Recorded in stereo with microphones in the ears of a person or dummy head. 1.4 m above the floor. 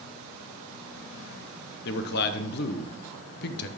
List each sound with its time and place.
1.9 s a man speaking: 55° left (ahead or behind), 1.0 m